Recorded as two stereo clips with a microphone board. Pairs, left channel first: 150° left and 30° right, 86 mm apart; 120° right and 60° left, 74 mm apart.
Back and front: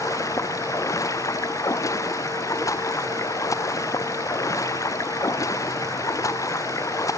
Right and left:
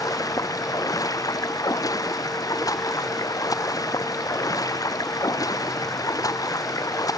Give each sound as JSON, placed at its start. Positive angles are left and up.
{"t": 0.0, "sound": "running water", "azimuth_deg": -160}